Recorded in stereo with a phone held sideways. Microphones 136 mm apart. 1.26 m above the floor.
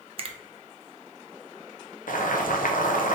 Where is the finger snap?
45° right (ahead or behind), 0.6 m.